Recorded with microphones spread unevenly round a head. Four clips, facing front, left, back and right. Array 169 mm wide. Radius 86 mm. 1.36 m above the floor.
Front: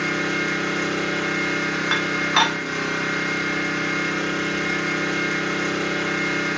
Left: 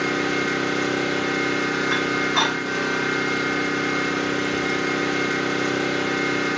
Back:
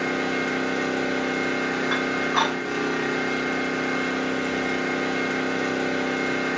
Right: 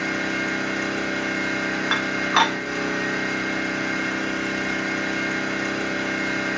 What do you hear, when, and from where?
0.0 s an engine running: 115° left, 1.0 m
1.9 s dishes clattering: 40° right, 0.8 m